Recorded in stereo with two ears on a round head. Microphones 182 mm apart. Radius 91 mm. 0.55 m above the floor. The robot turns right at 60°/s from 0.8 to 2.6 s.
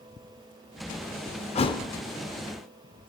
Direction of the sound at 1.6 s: 30° left (ahead or behind).